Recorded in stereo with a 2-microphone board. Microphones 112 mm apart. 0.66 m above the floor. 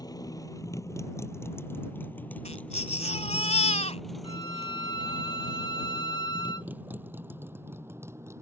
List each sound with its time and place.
0.0 s a motorcycle: 30° left (ahead or behind); by 8.4 s 25° right (ahead or behind)
2.5 s a baby crying: 65° left (ahead or behind)
4.2 s a violin: 40° left (ahead or behind)